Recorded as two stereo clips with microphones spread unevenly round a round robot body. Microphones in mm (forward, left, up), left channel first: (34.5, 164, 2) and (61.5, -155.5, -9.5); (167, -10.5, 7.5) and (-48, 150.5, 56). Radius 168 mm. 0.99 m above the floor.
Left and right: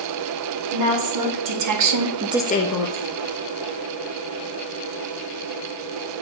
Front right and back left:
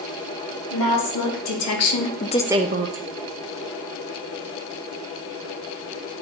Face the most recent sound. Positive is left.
turn(degrees=105)